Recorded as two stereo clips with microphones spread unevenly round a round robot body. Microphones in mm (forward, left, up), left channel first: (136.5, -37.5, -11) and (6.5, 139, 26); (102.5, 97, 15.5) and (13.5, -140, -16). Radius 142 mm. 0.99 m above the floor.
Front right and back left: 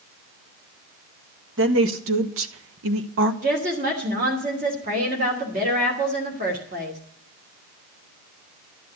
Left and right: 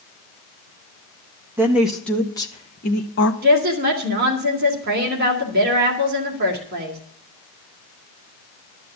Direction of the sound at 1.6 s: 170° left.